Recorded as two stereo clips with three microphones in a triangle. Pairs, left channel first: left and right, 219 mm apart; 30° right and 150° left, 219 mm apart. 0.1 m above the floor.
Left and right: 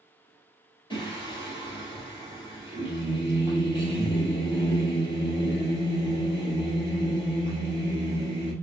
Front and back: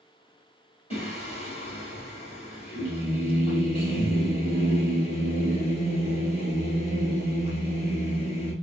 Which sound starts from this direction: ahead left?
Singing, at 0.9 s.